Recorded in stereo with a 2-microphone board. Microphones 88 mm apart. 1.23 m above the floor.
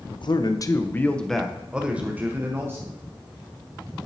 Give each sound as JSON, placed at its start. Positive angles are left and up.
{"t": 0.1, "sound": "a man speaking", "side_deg": 65, "distance_m": 0.7}